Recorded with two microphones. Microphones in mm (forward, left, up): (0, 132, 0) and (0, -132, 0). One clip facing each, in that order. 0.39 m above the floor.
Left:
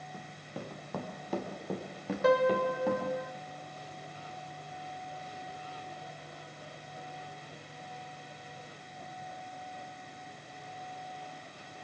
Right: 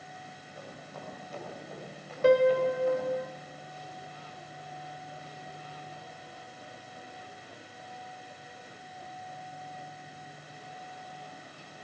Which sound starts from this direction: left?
Running footsteps, at 0.1 s.